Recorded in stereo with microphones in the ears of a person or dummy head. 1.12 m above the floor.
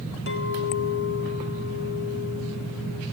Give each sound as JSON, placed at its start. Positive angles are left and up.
{"t": 0.3, "sound": "a clink", "side_deg": 55, "distance_m": 1.9}